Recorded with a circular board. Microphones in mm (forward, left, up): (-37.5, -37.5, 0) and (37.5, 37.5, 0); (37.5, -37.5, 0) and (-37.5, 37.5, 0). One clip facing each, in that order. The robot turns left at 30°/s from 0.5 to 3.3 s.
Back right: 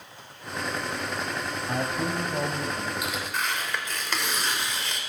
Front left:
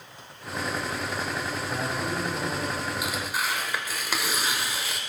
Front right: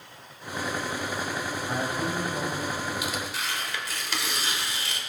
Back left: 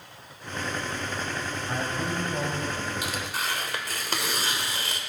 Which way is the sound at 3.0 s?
135° left.